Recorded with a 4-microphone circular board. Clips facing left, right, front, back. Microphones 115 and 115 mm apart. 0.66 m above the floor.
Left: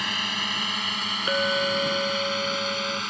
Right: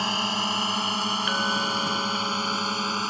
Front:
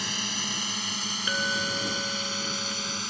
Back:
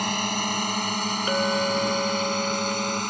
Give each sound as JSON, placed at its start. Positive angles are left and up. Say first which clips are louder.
{"t": 0.0, "sound": "a drone", "louder": "right 5 dB, back 9 dB", "azimuth_deg": -150}
{"t": 1.3, "sound": "a clink", "louder": "left 2 dB, back 7 dB", "azimuth_deg": 140}